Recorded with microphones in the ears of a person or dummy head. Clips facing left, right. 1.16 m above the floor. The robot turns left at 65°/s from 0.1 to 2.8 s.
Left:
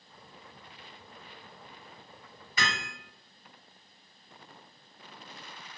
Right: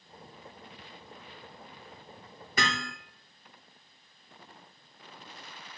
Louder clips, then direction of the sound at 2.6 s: Right 3 dB; 45° right (ahead or behind).